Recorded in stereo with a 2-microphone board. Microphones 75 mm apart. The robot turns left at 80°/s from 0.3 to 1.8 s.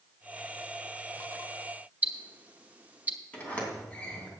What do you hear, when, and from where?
2.0 s ticking: 20° right (ahead or behind), 0.9 m
3.3 s a sliding door: 20° left (ahead or behind), 3 m